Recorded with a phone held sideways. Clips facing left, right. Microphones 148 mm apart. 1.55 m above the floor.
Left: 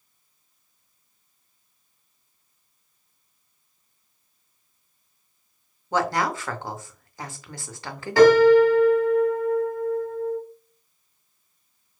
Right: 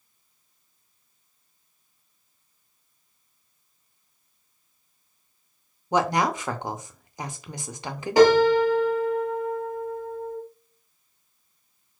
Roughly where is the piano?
Centre.